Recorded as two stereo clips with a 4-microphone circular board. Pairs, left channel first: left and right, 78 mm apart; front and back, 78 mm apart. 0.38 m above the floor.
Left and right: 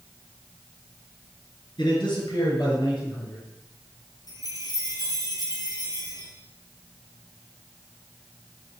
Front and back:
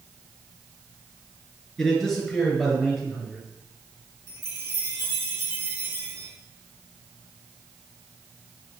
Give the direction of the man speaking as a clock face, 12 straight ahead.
9 o'clock.